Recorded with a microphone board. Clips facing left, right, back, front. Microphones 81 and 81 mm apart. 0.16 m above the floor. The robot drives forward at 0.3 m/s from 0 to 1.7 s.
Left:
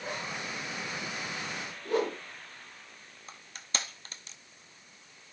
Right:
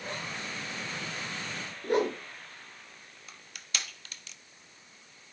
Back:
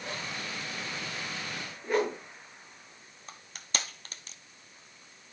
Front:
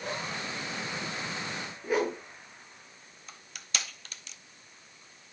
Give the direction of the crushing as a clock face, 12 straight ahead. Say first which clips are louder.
Left 2 dB, back 1 dB; 7 o'clock.